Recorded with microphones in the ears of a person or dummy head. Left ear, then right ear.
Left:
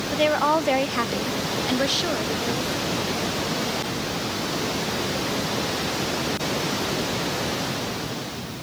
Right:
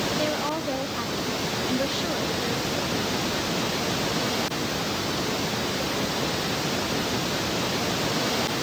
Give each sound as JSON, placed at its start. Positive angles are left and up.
{"t": 0.1, "sound": "a woman speaking", "side_deg": 45, "distance_m": 1.0}